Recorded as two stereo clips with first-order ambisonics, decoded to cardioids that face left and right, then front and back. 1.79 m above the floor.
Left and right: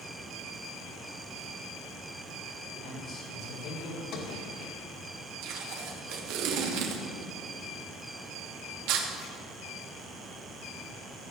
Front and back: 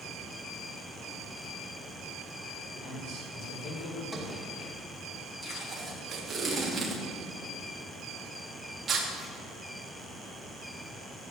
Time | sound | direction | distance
2.7 | a man speaking | 40° left | 7 m
4.1 | a sliding door | 85° left | 2 m
5.4 | tape being pulled | 110° right | 2.5 m